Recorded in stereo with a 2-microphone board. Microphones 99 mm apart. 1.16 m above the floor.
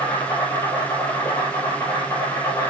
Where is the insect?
30° left (ahead or behind), 5 m.